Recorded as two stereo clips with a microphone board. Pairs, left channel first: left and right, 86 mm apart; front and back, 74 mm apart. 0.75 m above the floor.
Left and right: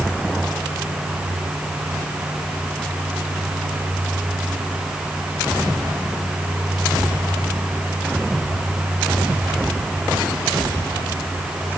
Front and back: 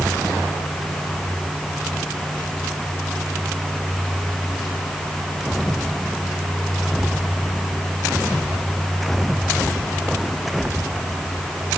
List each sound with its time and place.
Only background noise.